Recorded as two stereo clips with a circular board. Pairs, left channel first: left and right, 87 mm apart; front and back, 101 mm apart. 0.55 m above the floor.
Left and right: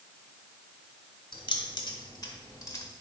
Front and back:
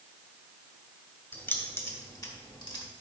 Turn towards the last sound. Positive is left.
turn(degrees=35)